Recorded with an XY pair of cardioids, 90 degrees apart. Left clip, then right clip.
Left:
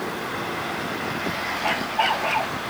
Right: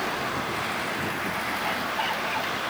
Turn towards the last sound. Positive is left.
turn(degrees=55)